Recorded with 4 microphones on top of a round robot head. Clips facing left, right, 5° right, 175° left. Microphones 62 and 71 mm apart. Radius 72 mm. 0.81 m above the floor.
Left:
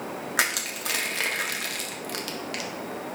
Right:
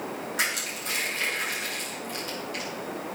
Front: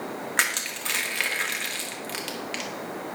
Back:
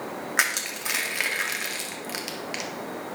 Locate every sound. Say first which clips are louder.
0.4 s crushing: left 4 dB, back 1 dB; 95° left, 1.6 m